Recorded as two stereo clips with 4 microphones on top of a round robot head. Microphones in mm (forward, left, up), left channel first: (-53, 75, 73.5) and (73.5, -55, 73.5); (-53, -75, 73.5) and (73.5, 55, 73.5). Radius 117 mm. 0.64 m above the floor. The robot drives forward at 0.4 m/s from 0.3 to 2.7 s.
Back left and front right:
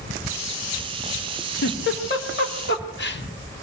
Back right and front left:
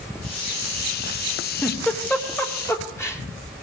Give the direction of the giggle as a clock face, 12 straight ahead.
7 o'clock.